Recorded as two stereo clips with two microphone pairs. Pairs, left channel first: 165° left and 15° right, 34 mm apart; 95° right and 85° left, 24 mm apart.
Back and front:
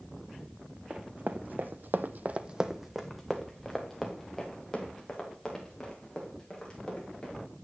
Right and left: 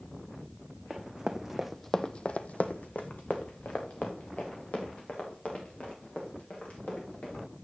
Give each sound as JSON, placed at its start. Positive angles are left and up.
{"t": 0.9, "sound": "running footsteps", "azimuth_deg": 30, "distance_m": 1.3}